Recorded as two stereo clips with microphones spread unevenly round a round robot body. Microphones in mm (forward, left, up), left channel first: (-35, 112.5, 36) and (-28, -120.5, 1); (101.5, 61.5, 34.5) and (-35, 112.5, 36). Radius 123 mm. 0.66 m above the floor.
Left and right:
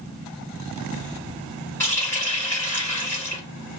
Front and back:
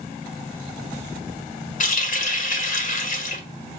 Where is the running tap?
10° left, 1.2 m.